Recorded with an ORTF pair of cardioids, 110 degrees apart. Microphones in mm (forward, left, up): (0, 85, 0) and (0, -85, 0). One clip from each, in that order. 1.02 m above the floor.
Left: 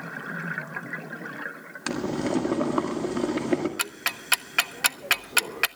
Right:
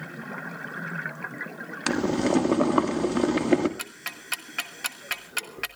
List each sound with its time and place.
1.9 s boiling: 25° right, 1.8 m
3.8 s ticking: 35° left, 0.6 m